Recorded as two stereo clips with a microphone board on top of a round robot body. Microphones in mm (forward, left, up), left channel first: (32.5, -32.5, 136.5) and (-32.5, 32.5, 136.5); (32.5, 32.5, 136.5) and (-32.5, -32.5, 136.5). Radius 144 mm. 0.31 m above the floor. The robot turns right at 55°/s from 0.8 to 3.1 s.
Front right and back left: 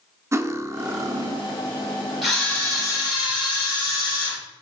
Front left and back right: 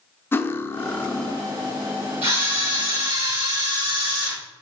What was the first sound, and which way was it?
Cutlery clinking, 95° left.